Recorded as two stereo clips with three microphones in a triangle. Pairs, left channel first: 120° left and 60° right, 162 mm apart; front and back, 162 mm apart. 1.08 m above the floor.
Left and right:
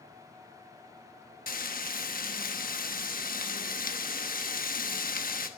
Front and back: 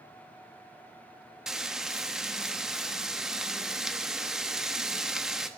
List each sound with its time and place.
1.5 s frying: 95° left, 1.0 m